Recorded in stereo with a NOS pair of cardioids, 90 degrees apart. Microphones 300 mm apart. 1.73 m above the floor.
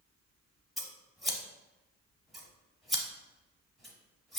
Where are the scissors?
Straight ahead, 0.7 m.